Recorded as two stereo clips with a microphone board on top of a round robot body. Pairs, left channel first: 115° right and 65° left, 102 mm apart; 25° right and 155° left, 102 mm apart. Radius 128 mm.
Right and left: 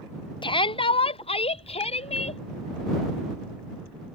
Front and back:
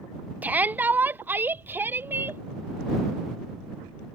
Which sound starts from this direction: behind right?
A shout, at 0.4 s.